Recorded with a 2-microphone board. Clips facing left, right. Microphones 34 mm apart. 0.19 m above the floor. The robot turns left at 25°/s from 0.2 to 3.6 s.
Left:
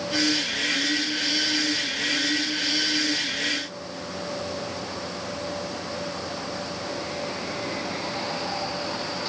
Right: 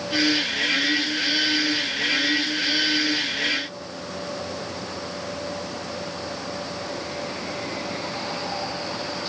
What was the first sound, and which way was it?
Only background noise.